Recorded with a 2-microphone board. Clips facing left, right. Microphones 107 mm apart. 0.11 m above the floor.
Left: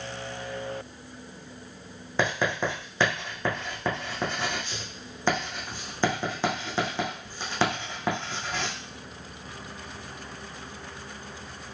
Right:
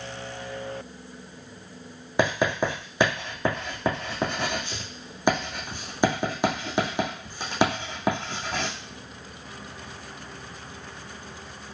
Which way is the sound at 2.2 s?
15° right (ahead or behind).